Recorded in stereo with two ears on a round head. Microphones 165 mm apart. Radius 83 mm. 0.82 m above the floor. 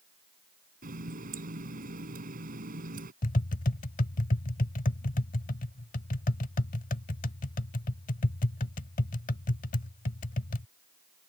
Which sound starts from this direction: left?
Tapping, at 3.2 s.